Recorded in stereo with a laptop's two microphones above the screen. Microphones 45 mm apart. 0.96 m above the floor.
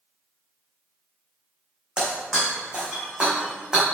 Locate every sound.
2.0 s breaking glass: 20° right (ahead or behind), 3 m